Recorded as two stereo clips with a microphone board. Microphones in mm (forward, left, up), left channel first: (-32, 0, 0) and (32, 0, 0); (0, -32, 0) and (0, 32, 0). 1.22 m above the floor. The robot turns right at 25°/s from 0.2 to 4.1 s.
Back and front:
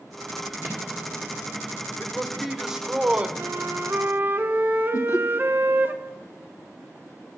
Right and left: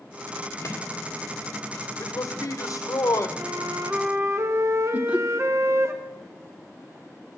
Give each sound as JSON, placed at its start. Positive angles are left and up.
{"t": 0.6, "sound": "a microwave", "azimuth_deg": -55, "distance_m": 1.7}
{"t": 2.0, "sound": "a man speaking", "azimuth_deg": -100, "distance_m": 0.7}
{"t": 3.4, "sound": "a flute", "azimuth_deg": 35, "distance_m": 0.6}
{"t": 4.9, "sound": "laughter", "azimuth_deg": 155, "distance_m": 1.0}